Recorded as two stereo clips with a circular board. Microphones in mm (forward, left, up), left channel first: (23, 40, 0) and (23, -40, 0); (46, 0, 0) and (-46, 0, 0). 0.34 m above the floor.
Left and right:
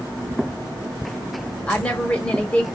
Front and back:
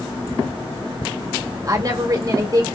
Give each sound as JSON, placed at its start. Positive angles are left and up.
{"t": 1.7, "sound": "a woman speaking", "azimuth_deg": 155, "distance_m": 1.1}